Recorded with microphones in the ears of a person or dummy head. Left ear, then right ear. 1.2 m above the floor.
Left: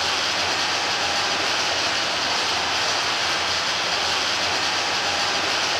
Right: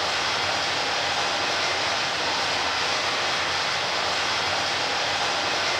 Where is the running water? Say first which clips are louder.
Left 2 dB; 55° left (ahead or behind), 5 m.